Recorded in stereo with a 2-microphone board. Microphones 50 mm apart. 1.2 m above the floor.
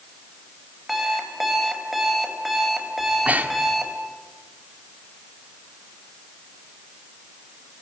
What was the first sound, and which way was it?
An alarm clock, 5° right (ahead or behind).